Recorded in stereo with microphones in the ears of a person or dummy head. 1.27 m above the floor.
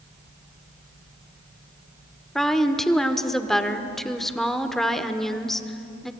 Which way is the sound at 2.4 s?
5° left (ahead or behind).